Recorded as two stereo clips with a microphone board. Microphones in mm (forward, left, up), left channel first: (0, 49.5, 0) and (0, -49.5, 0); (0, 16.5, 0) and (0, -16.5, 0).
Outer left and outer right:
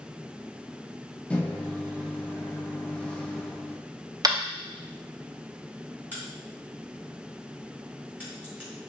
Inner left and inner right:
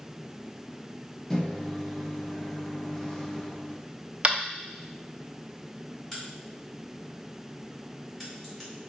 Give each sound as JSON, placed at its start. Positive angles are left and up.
{"t": 1.3, "sound": "a microwave", "side_deg": 15, "distance_m": 0.6}
{"t": 4.2, "sound": "tapping", "side_deg": -40, "distance_m": 0.6}
{"t": 6.1, "sound": "a crack", "side_deg": 15, "distance_m": 2.0}